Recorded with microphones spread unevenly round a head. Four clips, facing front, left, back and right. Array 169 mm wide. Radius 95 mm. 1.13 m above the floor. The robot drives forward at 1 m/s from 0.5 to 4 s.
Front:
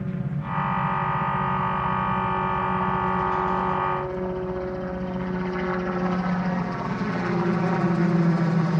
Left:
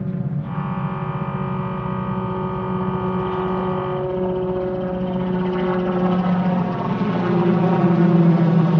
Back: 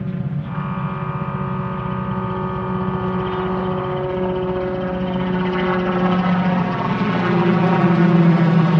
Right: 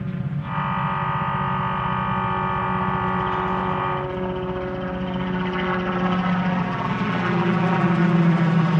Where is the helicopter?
115° left; by 8.8 s 130° left.